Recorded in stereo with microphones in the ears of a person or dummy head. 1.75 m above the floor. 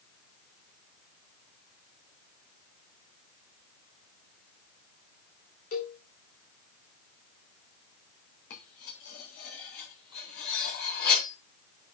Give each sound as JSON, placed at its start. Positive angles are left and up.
{"t": 5.7, "sound": "a cowbell", "side_deg": 35, "distance_m": 1.3}
{"t": 8.5, "sound": "cutlery clinking", "side_deg": 45, "distance_m": 2.0}